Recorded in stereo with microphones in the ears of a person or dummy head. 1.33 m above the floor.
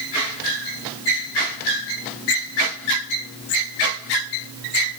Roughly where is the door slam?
No door slam in this recording.